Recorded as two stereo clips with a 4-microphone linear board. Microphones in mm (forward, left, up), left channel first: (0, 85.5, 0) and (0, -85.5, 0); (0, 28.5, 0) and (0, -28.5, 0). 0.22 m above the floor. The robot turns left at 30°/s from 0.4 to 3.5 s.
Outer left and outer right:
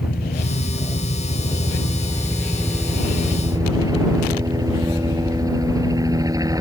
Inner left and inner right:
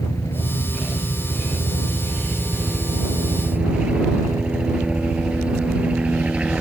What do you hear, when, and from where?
0.0 s a helicopter: 70° left; by 6.6 s 20° right